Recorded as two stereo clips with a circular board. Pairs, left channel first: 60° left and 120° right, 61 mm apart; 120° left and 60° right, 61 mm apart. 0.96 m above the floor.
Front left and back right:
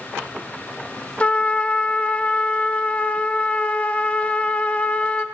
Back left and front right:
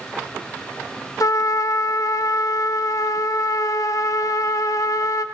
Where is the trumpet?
125° left, 0.5 m.